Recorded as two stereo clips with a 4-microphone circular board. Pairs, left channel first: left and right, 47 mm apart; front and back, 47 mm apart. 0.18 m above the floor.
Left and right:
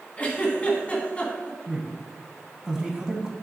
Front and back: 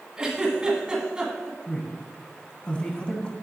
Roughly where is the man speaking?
Ahead right.